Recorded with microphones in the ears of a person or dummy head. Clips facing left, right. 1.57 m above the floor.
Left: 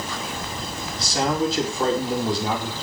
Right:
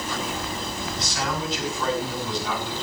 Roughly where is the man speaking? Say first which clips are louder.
Left 9 dB; left.